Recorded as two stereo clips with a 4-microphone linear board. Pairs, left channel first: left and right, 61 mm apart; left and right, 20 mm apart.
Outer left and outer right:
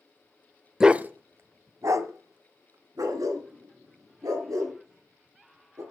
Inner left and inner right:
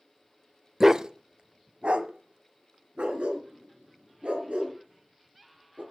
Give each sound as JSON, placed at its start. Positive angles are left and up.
{"t": 0.8, "sound": "a dog barking", "side_deg": -10, "distance_m": 0.5}